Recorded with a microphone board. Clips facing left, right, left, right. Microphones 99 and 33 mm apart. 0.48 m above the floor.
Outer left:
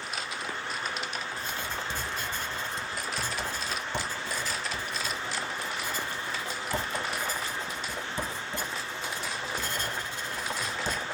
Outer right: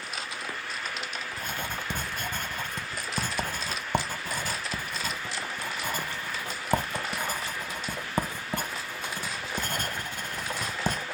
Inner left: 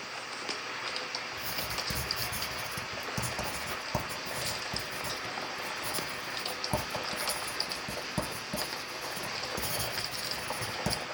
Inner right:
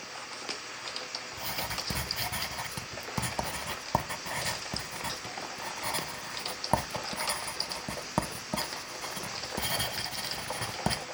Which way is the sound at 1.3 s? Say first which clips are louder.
Even, even; 55° right (ahead or behind).